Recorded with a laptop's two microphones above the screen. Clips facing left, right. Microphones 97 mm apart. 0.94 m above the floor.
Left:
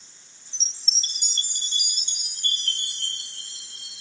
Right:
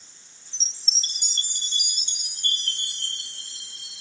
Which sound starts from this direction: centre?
A chime, at 0.5 s.